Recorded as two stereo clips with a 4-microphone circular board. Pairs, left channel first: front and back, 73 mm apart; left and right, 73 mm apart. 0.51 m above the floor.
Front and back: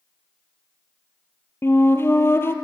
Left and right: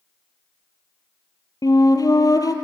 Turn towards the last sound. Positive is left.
turn(degrees=55)